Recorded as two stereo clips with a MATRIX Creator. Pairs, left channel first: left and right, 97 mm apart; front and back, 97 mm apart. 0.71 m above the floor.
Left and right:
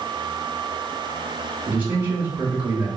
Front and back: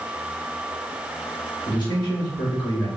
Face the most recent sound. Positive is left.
turn(degrees=-25)